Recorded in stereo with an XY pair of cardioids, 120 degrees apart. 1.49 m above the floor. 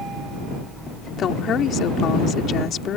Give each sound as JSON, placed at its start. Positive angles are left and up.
{"t": 1.2, "sound": "a woman speaking", "azimuth_deg": 55}